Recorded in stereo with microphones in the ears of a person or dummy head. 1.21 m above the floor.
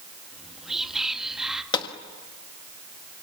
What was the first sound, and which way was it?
Whispering, 5° right (ahead or behind).